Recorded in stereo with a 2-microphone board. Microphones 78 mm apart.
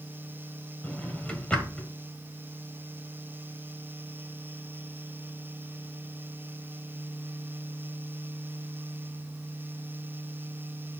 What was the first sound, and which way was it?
A drawer, 15° left (ahead or behind).